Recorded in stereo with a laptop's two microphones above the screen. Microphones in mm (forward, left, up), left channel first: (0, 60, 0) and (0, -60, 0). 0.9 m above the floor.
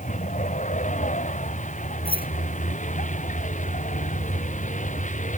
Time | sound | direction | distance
0.0 | a vehicle | 80° left | ?
2.0 | keys jangling | 45° right (ahead or behind) | ?